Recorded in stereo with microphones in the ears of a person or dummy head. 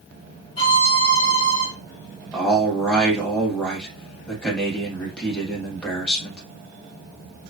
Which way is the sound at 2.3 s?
10° left (ahead or behind).